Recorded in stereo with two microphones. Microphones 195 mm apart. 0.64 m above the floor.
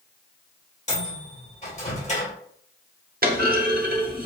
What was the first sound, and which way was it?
A microwave, 35° left (ahead or behind).